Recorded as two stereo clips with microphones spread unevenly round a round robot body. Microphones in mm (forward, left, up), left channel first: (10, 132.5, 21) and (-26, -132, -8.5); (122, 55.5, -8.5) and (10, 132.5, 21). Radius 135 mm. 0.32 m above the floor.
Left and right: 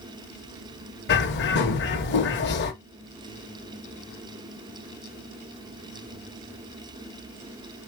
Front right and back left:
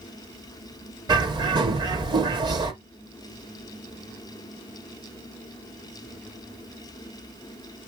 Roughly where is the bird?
Left.